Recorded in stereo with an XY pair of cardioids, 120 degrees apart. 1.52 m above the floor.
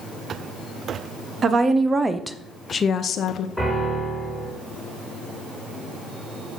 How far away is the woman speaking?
About 1.0 m.